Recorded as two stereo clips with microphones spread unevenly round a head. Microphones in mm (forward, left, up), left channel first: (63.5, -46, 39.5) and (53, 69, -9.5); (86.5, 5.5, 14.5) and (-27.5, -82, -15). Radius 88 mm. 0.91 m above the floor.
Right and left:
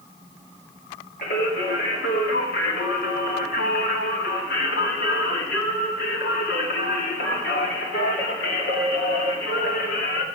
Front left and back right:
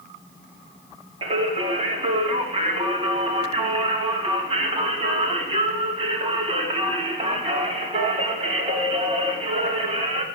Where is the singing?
100° right, 2.5 m.